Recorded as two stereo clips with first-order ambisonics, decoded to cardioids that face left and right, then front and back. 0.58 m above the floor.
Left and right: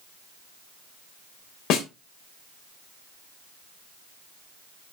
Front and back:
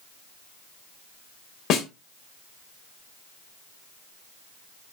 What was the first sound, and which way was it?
A snare drum, 50° left.